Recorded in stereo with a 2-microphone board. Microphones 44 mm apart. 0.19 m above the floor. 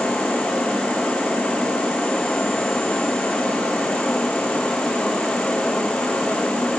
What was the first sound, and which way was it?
Only background noise.